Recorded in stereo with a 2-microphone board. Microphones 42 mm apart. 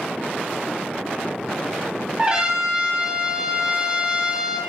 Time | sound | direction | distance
2.2 | a trumpet | 15° right (ahead or behind) | 1.8 m